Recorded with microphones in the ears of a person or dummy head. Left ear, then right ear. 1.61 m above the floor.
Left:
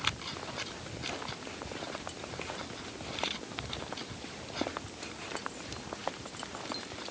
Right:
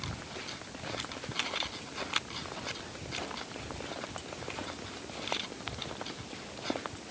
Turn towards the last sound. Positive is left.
No sound to turn to.